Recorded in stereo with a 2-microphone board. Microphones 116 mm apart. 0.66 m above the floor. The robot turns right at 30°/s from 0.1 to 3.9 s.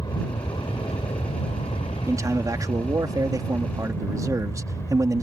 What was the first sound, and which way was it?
An aircraft, 35° left (ahead or behind).